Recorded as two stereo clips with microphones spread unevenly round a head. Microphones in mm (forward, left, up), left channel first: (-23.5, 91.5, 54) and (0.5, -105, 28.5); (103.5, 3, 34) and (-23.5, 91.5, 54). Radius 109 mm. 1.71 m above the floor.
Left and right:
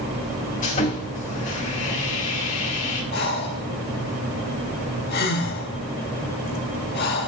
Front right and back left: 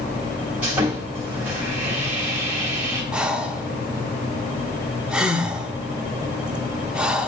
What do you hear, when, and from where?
0.6 s sawing: 80° left, 1.6 m
3.1 s breathing: 65° left, 0.6 m